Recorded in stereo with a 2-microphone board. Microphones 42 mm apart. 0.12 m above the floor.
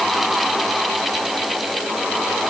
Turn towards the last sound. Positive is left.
No sound to turn to.